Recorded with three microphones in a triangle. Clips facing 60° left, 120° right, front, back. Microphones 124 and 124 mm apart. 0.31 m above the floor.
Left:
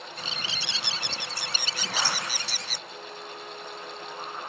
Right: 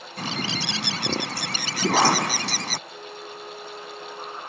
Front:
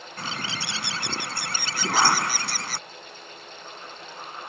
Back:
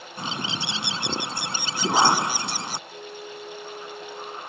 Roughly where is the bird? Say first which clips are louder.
Right 11 dB, back 3 dB; behind right.